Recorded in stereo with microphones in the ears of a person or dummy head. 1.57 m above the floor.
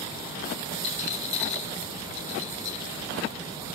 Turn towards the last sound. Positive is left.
turn(degrees=40)  # may be behind; listen again after turning